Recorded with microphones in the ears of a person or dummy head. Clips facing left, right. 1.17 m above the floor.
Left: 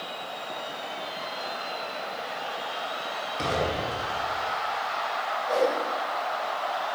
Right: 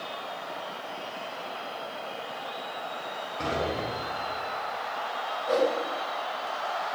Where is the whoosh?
45° right (ahead or behind), 0.7 m.